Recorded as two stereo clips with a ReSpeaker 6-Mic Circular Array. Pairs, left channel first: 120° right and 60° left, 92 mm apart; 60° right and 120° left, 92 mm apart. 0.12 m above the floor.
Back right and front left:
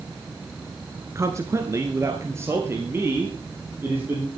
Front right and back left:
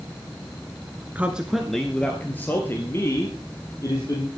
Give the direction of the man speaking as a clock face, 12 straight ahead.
10 o'clock.